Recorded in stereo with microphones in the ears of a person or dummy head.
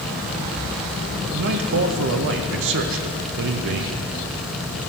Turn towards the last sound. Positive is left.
turn(degrees=-65)  # may be behind; listen again after turning